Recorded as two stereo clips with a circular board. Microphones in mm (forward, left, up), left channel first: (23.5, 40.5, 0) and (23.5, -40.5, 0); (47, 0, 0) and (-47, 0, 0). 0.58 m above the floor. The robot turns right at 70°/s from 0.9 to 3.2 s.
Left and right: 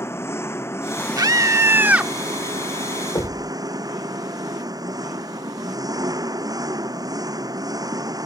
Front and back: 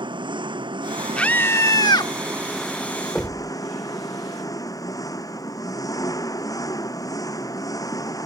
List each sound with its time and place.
0.0 s an engine running: 150° left; by 8.3 s 50° right
1.2 s a scream: 75° right; by 2.1 s 10° right
3.1 s knocking: 90° left; by 3.5 s 95° left